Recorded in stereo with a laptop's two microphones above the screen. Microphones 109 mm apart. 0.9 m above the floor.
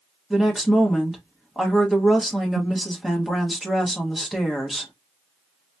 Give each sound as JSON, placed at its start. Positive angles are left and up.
{"t": 0.3, "sound": "a woman speaking", "side_deg": 0, "distance_m": 0.9}